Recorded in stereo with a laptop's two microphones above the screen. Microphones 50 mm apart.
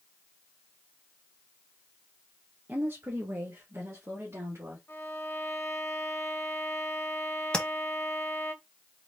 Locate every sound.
2.7 s a woman speaking: 35° right (ahead or behind), 0.8 m; by 4.8 s 60° right (ahead or behind), 1.6 m
4.9 s a violin: 50° left (ahead or behind), 1.3 m
7.5 s tapping: 15° left (ahead or behind), 0.8 m